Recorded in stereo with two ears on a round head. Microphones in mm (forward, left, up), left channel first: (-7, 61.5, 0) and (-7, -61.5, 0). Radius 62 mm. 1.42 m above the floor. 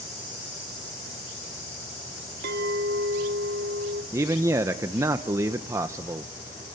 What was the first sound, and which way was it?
A clink, 70° right (ahead or behind).